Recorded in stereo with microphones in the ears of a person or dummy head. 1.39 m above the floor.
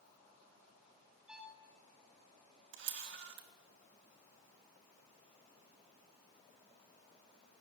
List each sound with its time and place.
1.3 s a violin: 5° right (ahead or behind), 1.1 m
2.7 s a camera shutter: 65° right (ahead or behind), 0.8 m